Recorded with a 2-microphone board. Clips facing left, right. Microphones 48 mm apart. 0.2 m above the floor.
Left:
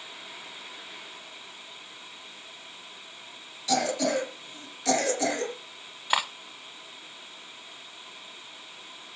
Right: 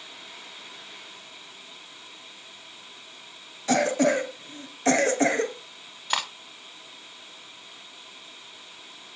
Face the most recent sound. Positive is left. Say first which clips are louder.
# left 2 dB
turn(degrees=10)  # may be behind; listen again after turning